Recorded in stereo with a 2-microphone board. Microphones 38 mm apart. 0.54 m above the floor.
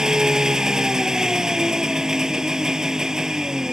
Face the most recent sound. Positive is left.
turn(degrees=-15)  # may be behind; listen again after turning